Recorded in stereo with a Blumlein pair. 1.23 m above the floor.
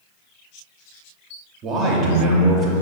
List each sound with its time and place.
1.6 s a man speaking: 30° right, 0.5 m